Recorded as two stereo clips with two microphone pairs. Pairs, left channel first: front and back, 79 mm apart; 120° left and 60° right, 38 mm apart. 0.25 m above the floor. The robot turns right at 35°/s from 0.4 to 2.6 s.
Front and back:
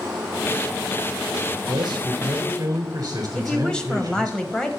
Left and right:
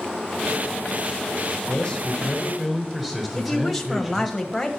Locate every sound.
1.7 s a man speaking: 170° right, 4 m; by 4.3 s 140° right, 4 m
3.4 s a woman speaking: 55° left, 1.2 m